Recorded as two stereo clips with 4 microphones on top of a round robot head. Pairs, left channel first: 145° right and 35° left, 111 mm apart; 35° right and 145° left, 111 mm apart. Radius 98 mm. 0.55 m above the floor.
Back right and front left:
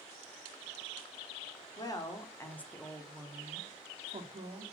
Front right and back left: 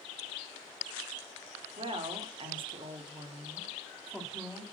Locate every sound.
1.8 s a woman speaking: 170° left, 1.9 m; by 4.6 s 55° left, 1.9 m